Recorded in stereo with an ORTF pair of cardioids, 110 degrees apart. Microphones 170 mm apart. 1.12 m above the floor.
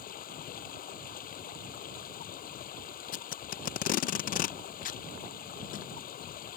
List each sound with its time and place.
0.0 s running water: 55° left
3.1 s tape being pulled: 55° left